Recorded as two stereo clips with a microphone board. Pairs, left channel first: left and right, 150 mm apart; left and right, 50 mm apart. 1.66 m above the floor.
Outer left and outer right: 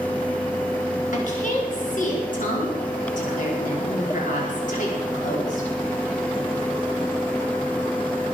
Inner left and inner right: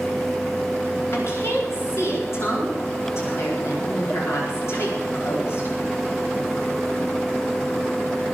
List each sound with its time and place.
1.1 s a woman speaking: 60° left (ahead or behind), 4.5 m